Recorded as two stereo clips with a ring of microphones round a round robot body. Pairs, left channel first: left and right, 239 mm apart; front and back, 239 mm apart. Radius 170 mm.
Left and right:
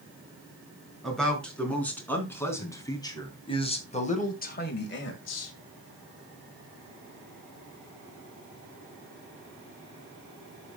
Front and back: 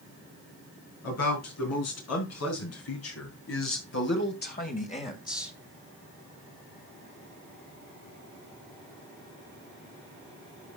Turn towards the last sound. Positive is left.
turn(degrees=80)